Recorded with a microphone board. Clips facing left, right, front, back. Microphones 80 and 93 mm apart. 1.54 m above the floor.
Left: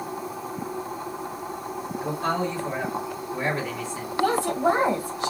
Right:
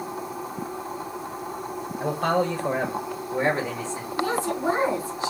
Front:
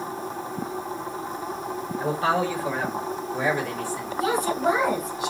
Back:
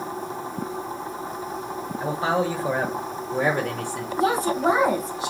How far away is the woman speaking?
About 1.9 m.